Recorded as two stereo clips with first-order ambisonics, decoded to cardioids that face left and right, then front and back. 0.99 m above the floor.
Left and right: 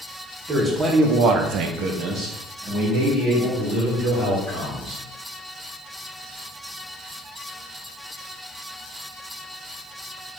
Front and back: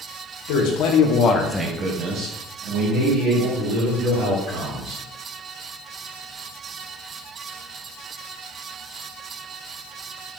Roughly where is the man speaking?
Ahead.